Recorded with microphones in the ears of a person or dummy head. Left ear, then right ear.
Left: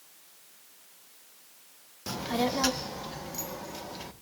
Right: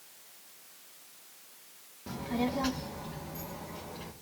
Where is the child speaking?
75° left (ahead or behind), 0.8 m; by 4.1 s 80° left, 1.8 m.